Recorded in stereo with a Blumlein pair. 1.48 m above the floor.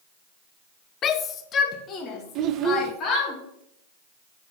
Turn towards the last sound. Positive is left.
turn(degrees=-35)